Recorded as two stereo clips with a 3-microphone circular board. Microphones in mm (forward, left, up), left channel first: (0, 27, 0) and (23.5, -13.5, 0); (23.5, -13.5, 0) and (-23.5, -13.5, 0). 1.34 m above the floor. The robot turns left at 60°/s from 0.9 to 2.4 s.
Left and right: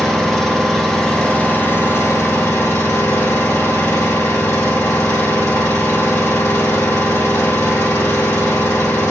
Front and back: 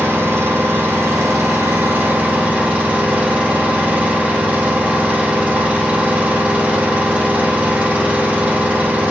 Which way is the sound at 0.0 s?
150° right.